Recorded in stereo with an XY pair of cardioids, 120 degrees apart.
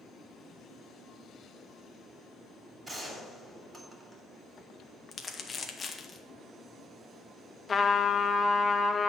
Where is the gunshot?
30° right, 3 m.